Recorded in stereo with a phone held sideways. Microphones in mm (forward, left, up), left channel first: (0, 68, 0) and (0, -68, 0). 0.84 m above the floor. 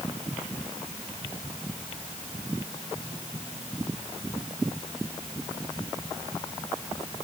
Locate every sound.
Only background noise.